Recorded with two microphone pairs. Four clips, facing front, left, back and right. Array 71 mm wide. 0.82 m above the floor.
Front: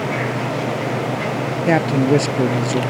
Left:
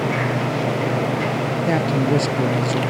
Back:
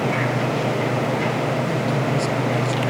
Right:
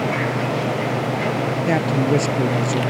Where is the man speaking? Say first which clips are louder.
Even, front 6 dB; 10° right.